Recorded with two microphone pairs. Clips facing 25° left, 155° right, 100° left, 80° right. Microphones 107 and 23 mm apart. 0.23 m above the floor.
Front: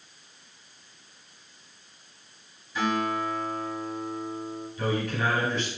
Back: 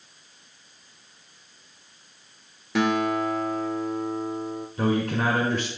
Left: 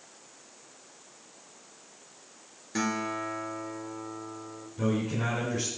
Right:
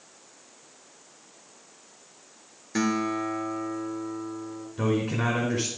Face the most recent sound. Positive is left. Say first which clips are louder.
# back 4 dB, right 3 dB
turn(degrees=-130)